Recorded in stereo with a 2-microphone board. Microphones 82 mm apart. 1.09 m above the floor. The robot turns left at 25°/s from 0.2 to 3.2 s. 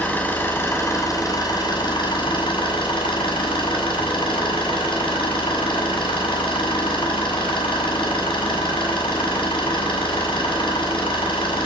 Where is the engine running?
160° left, 7.5 m; by 11.7 s 85° left, 7.5 m.